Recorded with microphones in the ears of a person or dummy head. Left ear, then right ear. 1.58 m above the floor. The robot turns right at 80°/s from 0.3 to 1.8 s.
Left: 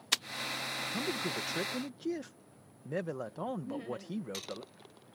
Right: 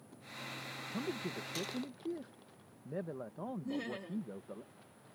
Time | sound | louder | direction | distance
0.9 | a man speaking | left 3 dB | 15° left | ?
3.6 | laughter | left 1 dB | 75° right (ahead or behind) | ?